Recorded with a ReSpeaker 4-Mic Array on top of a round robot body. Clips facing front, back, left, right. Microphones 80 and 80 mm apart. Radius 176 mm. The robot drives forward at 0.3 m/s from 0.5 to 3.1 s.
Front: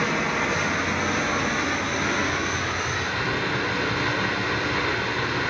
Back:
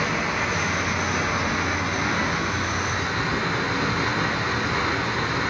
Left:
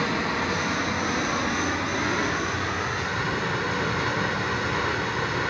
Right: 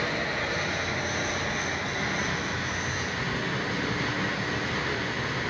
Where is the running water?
90° left, 2.5 m; by 5.5 s 110° left, 2.5 m.